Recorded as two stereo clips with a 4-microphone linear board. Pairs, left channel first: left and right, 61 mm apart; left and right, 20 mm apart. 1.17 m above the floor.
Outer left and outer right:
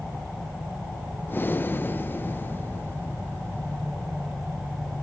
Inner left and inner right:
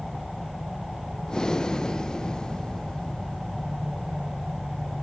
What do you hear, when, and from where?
1.3 s breathing: 35° left (ahead or behind), 0.9 m